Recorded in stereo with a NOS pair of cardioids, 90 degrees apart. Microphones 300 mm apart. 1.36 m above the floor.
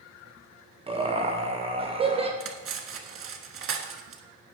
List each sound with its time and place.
0.9 s laughter: 20° right, 1.3 m
2.4 s cutlery clinking: 45° right, 1.4 m